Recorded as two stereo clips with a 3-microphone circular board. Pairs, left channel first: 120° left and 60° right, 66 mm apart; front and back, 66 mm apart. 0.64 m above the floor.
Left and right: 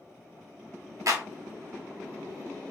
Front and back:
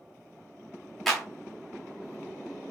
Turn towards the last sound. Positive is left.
turn(degrees=-90)